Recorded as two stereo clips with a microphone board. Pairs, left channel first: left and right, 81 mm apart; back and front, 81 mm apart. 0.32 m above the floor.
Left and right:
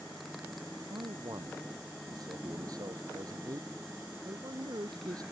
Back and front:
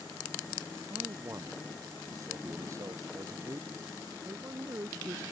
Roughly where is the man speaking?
Ahead right.